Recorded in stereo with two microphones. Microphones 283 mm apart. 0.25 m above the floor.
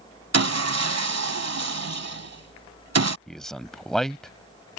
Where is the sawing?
65° right (ahead or behind).